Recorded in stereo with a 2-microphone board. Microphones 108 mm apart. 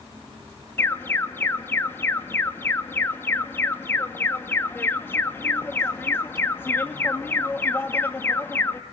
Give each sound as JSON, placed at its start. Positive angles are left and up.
{"t": 0.8, "sound": "an alarm", "side_deg": 20, "distance_m": 1.9}